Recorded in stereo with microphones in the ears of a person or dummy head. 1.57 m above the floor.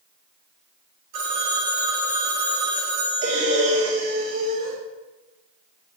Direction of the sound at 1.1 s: 45° right (ahead or behind).